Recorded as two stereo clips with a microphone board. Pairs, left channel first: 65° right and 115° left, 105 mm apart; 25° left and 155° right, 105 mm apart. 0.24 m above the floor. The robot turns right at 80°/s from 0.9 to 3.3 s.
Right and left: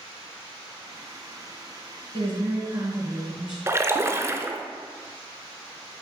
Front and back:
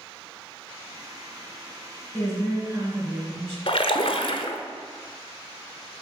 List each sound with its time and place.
2.1 s a woman speaking: 100° left, 3 m; by 3.6 s 170° right, 3 m
3.7 s a splash: 50° left, 0.6 m